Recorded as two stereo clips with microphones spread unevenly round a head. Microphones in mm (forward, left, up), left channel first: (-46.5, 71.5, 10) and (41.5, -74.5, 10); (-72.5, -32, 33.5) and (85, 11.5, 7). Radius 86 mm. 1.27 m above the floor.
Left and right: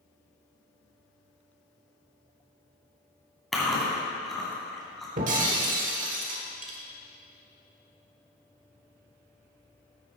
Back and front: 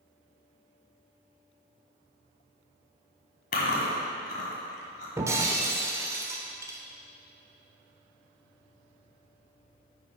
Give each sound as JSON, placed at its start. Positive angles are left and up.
{"t": 3.5, "sound": "chewing", "azimuth_deg": -150, "distance_m": 1.9}
{"t": 5.2, "sound": "breaking glass", "azimuth_deg": -60, "distance_m": 1.1}